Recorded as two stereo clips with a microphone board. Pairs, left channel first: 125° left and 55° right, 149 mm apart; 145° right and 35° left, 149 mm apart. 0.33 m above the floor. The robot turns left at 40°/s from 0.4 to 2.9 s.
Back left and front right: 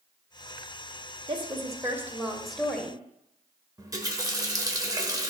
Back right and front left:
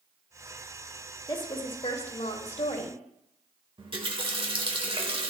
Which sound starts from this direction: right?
A woman speaking, at 1.3 s.